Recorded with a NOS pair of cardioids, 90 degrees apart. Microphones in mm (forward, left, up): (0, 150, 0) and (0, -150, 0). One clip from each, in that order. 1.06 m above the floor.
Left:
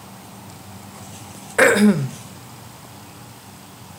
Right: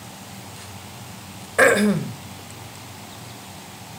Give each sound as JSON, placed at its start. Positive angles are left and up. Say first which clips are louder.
{"t": 1.6, "sound": "throat clearing", "louder": "left 1 dB", "azimuth_deg": 15, "distance_m": 0.8}